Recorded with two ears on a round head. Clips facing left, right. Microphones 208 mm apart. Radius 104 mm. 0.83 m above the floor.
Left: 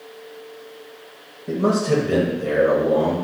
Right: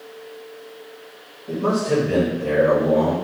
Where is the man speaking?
50° left (ahead or behind), 0.6 m; by 3.1 s 5° left (ahead or behind), 1.8 m.